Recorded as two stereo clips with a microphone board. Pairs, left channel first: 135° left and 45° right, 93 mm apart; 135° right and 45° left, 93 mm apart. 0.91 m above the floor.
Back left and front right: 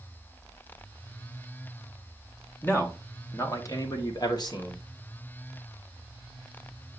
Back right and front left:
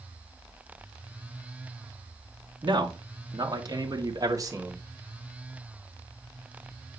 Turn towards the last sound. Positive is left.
turn(degrees=100)